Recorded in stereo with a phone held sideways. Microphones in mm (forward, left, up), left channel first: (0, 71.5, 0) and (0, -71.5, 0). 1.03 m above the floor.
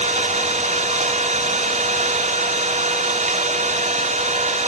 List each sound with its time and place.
0.0 s an engine running: 55° right (ahead or behind), 4 m